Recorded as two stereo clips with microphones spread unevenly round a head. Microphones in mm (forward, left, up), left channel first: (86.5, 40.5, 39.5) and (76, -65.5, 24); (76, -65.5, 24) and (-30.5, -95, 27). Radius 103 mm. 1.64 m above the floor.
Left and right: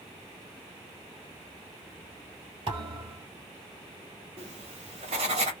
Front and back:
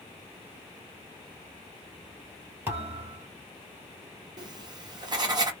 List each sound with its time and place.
2.7 s a thud: 125° right, 1.8 m
4.4 s writing: 140° right, 0.8 m